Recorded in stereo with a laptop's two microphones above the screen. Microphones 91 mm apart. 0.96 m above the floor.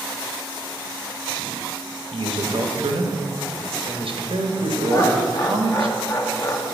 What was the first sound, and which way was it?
A man speaking, 75° right (ahead or behind).